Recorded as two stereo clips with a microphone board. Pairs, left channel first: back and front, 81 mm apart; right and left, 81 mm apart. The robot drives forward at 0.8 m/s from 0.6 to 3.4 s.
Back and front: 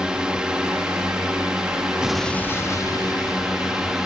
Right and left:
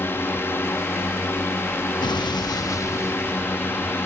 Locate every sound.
0.0 s a drone: 70° right; by 4.1 s 75° right
2.0 s an explosion: 80° right; by 4.0 s 155° right